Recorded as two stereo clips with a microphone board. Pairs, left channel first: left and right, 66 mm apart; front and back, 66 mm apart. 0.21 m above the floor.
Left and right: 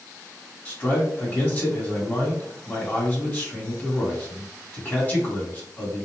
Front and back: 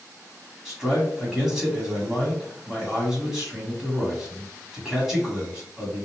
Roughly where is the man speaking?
Left.